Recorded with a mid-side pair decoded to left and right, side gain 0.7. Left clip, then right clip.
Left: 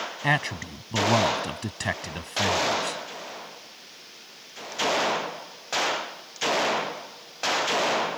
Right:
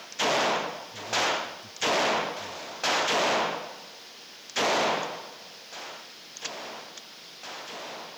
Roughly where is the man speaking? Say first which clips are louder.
Right 1 dB; ahead left.